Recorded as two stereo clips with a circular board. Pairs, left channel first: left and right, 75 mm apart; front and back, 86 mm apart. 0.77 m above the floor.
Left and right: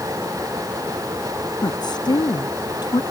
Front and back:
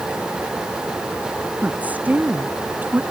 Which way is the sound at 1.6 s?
110° left.